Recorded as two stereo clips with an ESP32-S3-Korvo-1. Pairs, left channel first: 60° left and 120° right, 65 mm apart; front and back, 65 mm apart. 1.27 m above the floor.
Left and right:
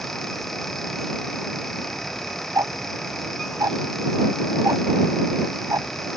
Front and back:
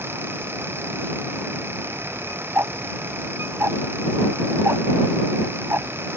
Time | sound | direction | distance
2.5 | ticking | 135° right | ?